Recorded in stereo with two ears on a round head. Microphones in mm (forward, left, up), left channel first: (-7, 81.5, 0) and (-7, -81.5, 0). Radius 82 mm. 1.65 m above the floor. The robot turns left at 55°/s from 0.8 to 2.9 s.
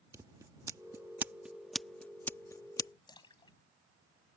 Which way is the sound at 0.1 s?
20° right (ahead or behind).